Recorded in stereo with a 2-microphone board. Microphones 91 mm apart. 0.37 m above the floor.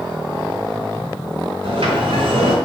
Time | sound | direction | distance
1.6 | a sliding door | 75° right (ahead or behind) | 3.5 m